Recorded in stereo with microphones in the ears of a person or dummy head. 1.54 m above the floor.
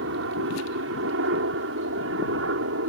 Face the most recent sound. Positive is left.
turn(degrees=-75)  # may be behind; listen again after turning